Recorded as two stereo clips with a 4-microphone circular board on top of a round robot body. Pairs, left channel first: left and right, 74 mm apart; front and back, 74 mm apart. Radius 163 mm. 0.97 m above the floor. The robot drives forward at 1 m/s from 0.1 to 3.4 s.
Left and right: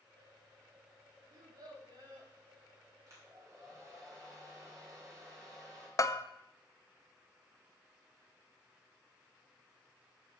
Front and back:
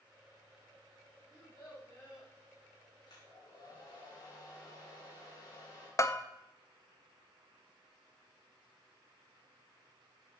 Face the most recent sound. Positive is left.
turn(degrees=45)